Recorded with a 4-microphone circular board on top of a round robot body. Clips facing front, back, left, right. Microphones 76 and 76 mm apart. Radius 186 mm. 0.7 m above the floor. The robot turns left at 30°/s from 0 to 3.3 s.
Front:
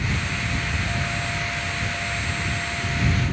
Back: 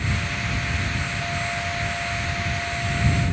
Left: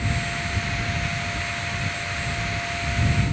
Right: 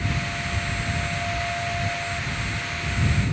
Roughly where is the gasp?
No gasp in this recording.